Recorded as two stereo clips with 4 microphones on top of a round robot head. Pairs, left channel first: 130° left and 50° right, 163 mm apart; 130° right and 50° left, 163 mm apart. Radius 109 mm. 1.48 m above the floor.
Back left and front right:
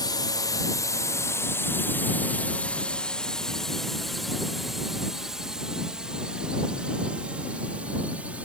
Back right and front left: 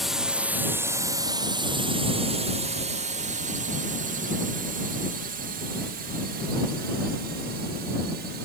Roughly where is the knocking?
I don't hear knocking.